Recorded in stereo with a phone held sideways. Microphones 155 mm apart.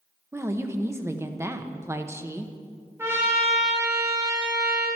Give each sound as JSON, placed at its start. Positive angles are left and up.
{"t": 0.3, "sound": "a woman speaking", "side_deg": -15, "distance_m": 1.0}
{"t": 3.0, "sound": "a trumpet", "side_deg": -15, "distance_m": 5.5}